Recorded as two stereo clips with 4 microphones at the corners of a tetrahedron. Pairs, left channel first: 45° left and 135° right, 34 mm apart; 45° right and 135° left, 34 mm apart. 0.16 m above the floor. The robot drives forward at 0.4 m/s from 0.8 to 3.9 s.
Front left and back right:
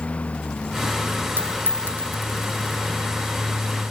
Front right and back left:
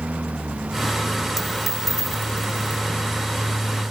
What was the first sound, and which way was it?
A lawn mower, 95° left.